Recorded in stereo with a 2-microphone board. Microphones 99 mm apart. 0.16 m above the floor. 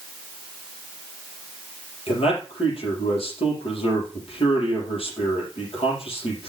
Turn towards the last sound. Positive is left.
turn(degrees=70)  # may be behind; listen again after turning